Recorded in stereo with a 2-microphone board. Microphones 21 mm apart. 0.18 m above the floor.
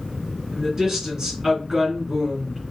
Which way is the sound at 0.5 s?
35° right (ahead or behind).